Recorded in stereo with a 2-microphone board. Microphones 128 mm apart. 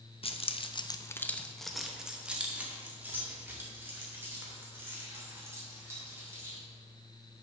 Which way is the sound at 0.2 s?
45° left (ahead or behind).